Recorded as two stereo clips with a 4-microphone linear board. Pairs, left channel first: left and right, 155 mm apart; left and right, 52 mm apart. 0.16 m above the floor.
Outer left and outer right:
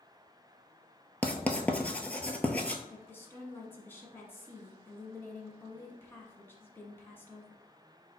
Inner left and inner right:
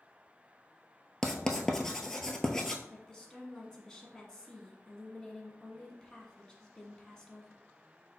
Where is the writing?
10° left (ahead or behind), 0.6 m.